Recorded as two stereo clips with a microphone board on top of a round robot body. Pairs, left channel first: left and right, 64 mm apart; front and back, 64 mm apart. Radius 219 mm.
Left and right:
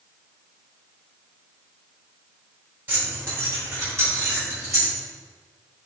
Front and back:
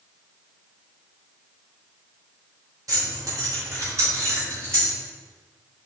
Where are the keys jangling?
150° right, 2.5 m; by 4.9 s 130° right, 3 m.